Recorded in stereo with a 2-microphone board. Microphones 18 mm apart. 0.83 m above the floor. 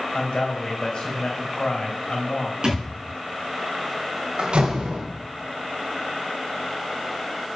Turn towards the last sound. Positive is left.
turn(degrees=-75)  # may be behind; listen again after turning